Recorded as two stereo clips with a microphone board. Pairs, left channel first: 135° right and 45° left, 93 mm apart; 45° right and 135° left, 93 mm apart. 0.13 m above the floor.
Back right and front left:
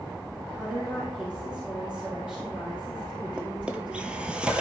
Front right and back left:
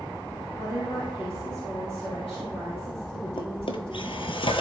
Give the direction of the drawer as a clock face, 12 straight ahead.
1 o'clock.